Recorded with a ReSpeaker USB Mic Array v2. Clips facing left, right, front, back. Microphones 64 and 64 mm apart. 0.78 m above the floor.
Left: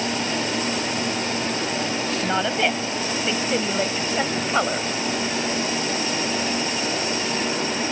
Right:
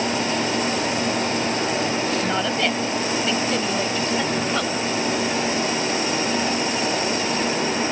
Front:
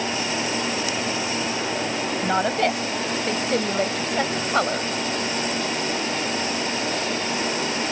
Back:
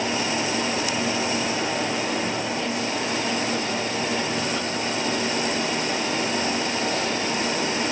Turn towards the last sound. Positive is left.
turn(degrees=30)